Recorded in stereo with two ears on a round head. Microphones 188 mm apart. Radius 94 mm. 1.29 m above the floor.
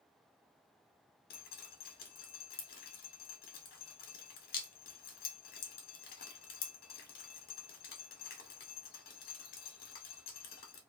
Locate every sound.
1.3 s dripping: 45° left (ahead or behind), 0.8 m